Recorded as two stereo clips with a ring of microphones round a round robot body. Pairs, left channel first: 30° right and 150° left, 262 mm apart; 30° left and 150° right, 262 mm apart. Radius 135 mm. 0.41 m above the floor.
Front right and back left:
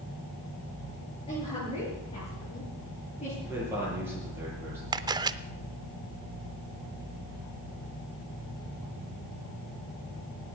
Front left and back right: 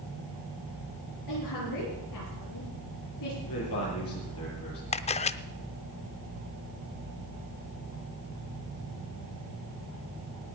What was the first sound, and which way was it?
A woman speaking, 40° left.